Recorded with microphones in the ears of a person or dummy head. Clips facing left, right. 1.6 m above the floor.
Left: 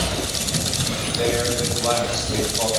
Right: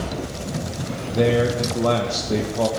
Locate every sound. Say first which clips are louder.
1.1 s a man speaking: right 4 dB; 55° right (ahead or behind), 1.4 m